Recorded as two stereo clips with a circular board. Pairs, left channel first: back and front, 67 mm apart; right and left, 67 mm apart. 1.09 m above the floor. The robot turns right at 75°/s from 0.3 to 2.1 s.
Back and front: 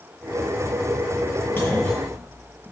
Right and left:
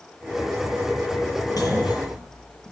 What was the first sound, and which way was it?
A clunk, 120° right.